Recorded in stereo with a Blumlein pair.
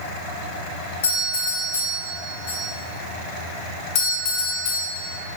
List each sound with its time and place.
1.0 s a doorbell: 65° left, 2.5 m
4.0 s a doorbell: 45° left, 1.4 m